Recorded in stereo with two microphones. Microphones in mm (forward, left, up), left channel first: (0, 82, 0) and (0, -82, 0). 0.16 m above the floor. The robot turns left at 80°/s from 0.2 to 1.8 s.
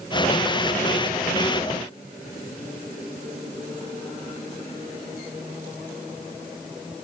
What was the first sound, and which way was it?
Only background noise.